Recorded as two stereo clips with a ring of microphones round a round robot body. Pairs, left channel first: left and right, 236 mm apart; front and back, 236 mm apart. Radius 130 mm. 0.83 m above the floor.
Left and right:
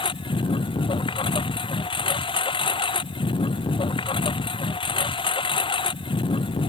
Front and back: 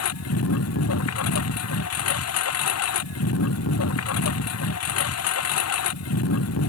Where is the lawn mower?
20° left.